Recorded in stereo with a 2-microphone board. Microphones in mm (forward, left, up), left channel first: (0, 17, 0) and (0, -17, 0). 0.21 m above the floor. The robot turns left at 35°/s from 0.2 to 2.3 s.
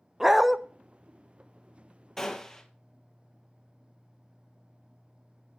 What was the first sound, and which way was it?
A dog barking, 10° right (ahead or behind).